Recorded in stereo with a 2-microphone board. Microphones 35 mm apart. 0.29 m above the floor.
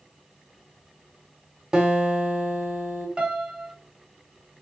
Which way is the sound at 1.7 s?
20° right (ahead or behind).